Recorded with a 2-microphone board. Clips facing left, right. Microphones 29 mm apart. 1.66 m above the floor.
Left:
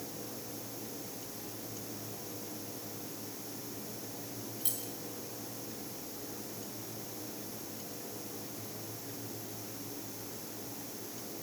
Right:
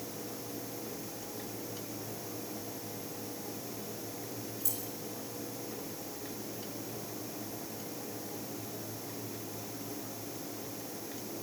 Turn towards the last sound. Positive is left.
turn(degrees=45)  # may be behind; listen again after turning